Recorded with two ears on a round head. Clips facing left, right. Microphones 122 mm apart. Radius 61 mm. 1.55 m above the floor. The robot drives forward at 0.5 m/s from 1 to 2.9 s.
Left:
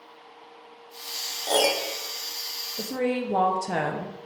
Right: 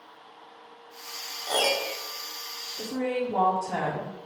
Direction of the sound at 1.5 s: 40° left (ahead or behind).